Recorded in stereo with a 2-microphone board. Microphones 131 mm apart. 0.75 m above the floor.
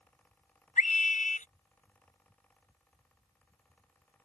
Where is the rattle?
No rattle in this recording.